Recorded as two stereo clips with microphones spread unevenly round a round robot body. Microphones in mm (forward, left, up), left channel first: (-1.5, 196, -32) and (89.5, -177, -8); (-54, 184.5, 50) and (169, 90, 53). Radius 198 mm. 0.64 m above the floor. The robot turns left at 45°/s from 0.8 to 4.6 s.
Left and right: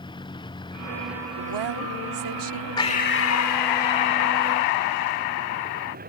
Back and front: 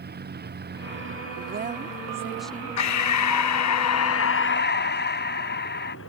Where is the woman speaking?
65° right; by 2.8 s 130° right.